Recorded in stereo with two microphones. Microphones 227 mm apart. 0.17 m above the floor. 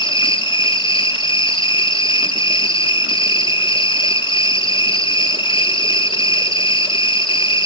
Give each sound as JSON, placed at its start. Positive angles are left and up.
{"t": 0.0, "sound": "an insect", "side_deg": 20, "distance_m": 1.7}